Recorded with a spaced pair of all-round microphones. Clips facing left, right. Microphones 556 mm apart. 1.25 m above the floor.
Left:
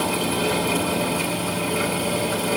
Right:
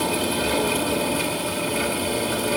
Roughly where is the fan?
Centre.